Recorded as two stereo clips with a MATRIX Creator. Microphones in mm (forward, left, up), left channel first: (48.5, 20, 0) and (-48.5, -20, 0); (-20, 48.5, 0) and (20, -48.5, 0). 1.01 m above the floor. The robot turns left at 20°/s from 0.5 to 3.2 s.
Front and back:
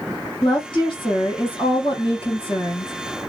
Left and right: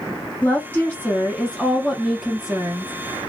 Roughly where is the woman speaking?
Ahead left.